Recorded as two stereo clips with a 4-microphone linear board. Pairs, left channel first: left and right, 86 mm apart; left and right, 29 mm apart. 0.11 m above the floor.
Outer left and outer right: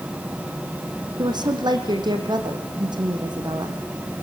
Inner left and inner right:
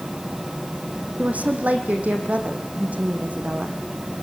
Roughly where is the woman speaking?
Right.